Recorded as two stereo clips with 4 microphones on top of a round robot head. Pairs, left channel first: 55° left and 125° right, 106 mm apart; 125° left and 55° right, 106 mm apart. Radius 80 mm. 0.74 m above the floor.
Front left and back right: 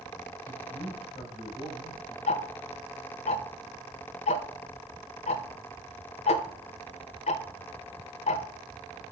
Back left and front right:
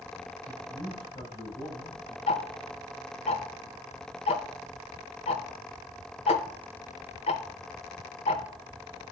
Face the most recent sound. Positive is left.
turn(degrees=85)